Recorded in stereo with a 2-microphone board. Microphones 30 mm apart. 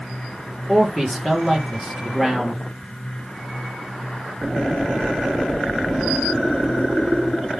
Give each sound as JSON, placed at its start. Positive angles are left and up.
{"t": 0.7, "sound": "a man speaking", "side_deg": 5, "distance_m": 5.0}